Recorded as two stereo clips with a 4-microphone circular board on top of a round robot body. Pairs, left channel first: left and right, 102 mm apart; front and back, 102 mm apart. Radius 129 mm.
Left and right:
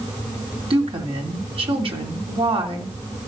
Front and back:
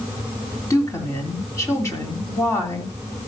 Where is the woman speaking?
60° right, 3 m.